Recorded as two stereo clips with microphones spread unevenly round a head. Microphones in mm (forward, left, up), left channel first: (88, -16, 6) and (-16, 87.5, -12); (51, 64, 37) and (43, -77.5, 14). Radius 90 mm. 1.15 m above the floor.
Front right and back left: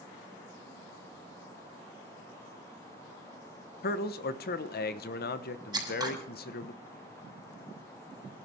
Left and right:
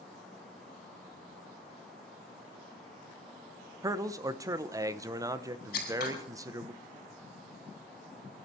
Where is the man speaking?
35° right, 1.1 m.